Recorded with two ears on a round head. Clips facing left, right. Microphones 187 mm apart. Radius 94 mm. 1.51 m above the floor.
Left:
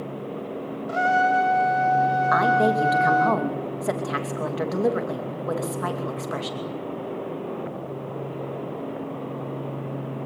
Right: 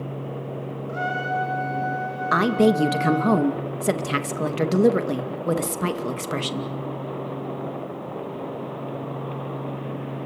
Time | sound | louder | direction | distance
0.9 | a trumpet | left 7 dB | 80° left | 4 m
2.3 | a woman speaking | right 5 dB | 40° right (ahead or behind) | 2.5 m